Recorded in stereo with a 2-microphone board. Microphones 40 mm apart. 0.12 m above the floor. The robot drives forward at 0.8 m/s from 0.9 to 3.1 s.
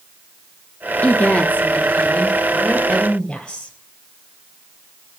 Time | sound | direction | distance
1.0 | a woman speaking | 45° left (ahead or behind) | 1.4 m